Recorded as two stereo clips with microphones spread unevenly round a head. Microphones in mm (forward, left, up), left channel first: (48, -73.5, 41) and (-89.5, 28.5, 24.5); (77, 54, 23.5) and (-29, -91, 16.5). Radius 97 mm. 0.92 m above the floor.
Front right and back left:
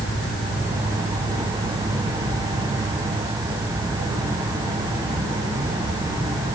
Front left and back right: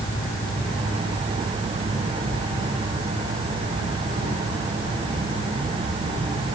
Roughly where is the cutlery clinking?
I don't hear cutlery clinking.